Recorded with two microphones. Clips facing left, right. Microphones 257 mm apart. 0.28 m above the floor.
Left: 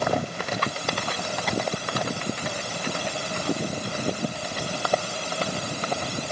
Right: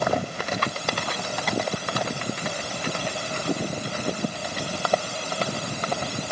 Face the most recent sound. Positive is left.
No sound to turn to.